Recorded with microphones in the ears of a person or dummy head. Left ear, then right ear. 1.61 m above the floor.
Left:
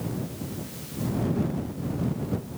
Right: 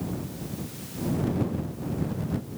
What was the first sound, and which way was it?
Only background noise.